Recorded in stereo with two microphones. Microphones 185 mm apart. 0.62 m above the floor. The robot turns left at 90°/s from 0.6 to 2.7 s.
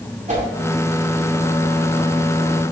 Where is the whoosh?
40° right (ahead or behind), 2 m.